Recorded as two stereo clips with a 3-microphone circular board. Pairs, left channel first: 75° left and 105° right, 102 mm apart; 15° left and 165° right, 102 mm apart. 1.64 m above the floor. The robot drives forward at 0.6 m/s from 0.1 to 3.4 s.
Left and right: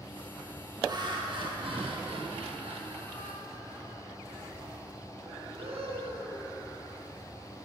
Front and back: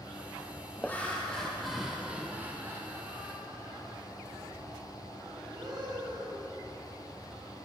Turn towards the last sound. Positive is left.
turn(degrees=-115)